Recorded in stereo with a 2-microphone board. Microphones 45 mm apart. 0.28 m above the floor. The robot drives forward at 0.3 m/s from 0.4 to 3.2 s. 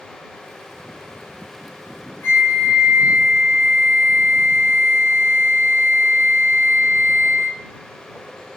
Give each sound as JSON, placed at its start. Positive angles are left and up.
{"t": 2.2, "sound": "a flute", "side_deg": 65, "distance_m": 0.5}